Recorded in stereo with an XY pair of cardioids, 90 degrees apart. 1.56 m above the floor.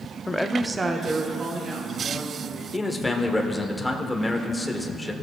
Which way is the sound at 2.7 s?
15° left.